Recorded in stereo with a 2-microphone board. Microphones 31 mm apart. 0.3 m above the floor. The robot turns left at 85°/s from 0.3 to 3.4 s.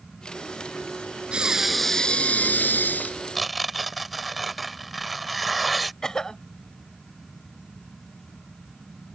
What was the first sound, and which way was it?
Breathing, 145° right.